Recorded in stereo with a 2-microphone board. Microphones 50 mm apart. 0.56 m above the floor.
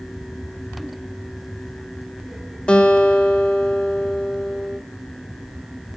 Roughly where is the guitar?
Left.